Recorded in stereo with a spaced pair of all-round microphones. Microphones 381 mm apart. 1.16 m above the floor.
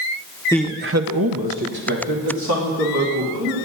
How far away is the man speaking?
About 0.6 m.